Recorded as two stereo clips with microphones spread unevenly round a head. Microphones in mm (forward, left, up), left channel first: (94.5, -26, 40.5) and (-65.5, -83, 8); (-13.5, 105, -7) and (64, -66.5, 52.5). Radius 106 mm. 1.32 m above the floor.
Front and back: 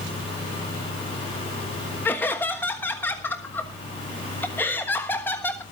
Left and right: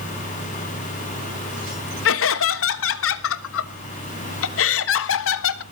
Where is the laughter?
100° left, 1.2 m.